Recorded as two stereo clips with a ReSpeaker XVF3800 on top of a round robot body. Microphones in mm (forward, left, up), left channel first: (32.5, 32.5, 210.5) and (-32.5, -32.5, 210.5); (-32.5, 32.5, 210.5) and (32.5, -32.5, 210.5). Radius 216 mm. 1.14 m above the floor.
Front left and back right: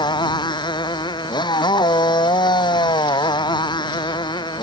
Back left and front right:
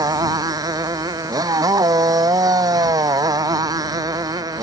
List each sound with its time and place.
0.0 s a motorcycle: 5° left